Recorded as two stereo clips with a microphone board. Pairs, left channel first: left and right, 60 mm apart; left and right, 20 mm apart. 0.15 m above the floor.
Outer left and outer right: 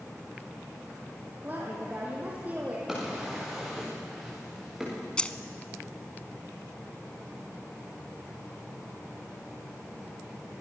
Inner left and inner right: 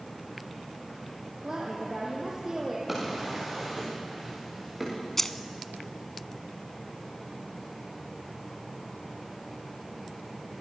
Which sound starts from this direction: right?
A woman speaking, at 1.4 s.